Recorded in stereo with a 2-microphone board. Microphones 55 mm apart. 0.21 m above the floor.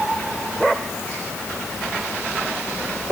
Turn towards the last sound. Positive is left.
No sound to turn to.